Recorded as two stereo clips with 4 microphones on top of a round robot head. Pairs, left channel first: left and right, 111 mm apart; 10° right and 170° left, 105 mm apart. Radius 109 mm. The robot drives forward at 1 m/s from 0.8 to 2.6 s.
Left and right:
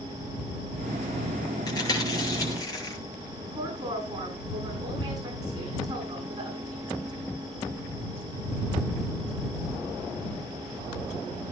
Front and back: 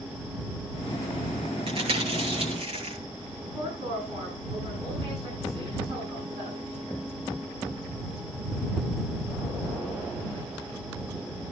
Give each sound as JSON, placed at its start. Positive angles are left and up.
{"t": 1.7, "sound": "chewing", "azimuth_deg": 145, "distance_m": 8.0}
{"t": 3.4, "sound": "a woman speaking", "azimuth_deg": -145, "distance_m": 10.0}